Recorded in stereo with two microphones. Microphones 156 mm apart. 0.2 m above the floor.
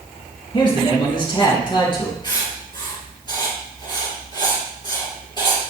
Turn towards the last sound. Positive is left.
turn(degrees=30)  # may be behind; listen again after turning